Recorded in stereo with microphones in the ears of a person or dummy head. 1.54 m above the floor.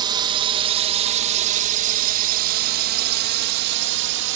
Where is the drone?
25° right (ahead or behind); by 4.4 s 70° right (ahead or behind).